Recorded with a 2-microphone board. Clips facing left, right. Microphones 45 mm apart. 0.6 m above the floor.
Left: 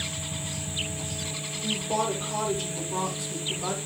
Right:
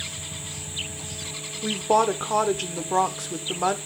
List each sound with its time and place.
1.6 s a woman speaking: 65° right (ahead or behind), 1.5 m